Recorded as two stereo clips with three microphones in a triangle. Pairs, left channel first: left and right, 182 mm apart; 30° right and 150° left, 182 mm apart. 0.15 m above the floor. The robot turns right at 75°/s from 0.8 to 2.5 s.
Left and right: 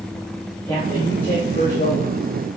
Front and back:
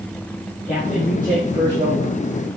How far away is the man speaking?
About 4 m.